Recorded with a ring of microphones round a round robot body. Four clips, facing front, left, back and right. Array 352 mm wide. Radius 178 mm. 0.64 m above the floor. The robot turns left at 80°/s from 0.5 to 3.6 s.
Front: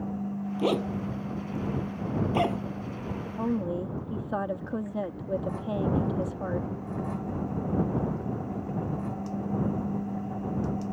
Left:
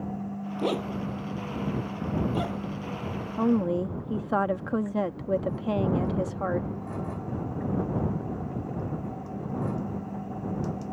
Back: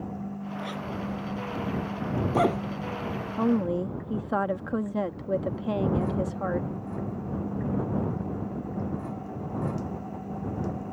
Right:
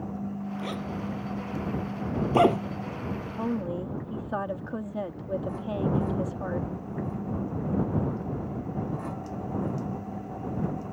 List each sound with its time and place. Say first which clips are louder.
0.6 s a zipper: left 9 dB, front 9 dB; 40° left; by 2.6 s 120° right
3.4 s a woman speaking: left 7 dB, back 5 dB; 140° left; by 6.7 s 120° left